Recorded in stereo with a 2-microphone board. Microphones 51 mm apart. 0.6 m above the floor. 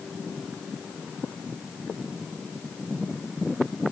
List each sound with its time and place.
Only background noise.